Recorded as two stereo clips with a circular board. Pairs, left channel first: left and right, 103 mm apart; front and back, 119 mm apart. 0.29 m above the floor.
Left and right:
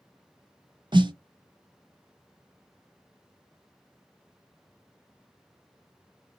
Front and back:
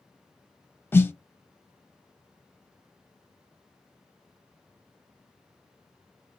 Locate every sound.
0.9 s a snare drum: 65° right, 0.6 m